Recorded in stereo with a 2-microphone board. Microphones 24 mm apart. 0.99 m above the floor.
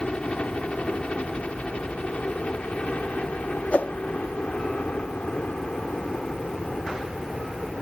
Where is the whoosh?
60° left (ahead or behind).